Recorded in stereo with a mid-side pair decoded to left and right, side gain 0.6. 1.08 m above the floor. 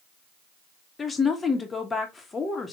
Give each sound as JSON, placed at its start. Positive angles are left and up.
{"t": 1.0, "sound": "a woman speaking", "azimuth_deg": 25, "distance_m": 1.3}